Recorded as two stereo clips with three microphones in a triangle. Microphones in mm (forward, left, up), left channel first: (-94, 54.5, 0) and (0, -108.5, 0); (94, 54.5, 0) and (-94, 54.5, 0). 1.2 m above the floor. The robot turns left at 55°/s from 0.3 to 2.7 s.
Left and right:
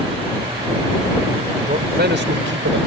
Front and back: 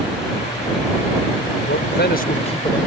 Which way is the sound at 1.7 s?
10° right.